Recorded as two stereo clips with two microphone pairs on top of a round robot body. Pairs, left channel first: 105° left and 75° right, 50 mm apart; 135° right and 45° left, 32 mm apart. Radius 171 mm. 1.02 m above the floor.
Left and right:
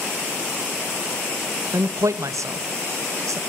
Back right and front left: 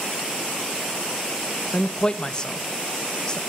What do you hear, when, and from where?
1.7 s a man speaking: 70° right, 1.4 m